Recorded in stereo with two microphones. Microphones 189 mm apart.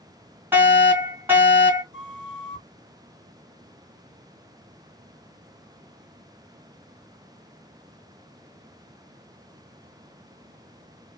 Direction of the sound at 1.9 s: 70° left (ahead or behind).